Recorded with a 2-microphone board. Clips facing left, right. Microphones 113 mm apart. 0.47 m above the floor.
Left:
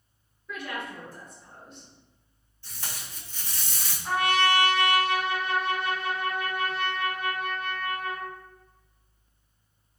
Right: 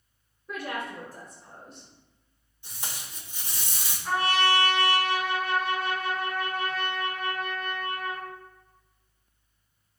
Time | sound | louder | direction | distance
0.5 | a woman speaking | right 2 dB | 35° right (ahead or behind) | 0.9 m
2.6 | tape being pulled | even | 15° right (ahead or behind) | 0.9 m
4.0 | a trumpet | left 1 dB | 30° left (ahead or behind) | 1.6 m